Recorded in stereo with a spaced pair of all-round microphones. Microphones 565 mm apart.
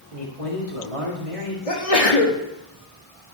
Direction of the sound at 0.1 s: 80° right.